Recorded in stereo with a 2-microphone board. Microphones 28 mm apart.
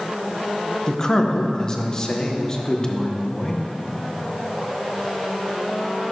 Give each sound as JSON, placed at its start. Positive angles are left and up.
{"t": 0.9, "sound": "a man speaking", "side_deg": 30, "distance_m": 1.1}